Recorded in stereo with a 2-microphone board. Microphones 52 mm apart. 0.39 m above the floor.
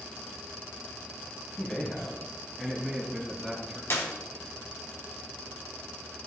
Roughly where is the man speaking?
Left.